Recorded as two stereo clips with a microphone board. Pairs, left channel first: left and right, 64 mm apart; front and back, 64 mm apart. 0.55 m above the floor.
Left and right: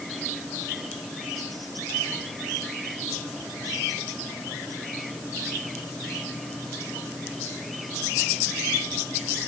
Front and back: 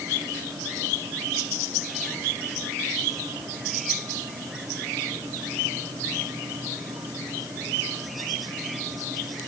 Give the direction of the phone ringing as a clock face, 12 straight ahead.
No phone ringing in this recording.